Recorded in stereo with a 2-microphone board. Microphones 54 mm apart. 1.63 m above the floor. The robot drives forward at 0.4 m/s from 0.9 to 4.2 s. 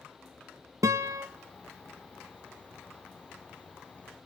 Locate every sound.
0.8 s a guitar: 65° right (ahead or behind), 1.3 m